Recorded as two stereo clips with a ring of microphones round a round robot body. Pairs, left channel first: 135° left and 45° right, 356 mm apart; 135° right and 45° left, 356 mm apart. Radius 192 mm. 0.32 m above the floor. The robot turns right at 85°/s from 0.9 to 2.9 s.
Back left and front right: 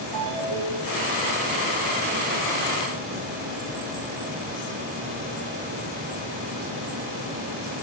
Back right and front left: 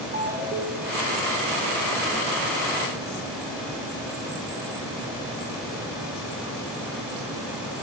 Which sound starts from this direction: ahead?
A ringtone, at 0.1 s.